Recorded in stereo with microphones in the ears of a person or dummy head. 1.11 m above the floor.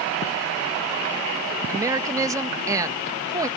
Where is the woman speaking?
20° right (ahead or behind).